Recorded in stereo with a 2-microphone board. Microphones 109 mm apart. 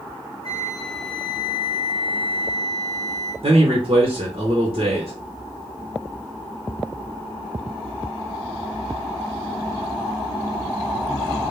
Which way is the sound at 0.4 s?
60° right (ahead or behind).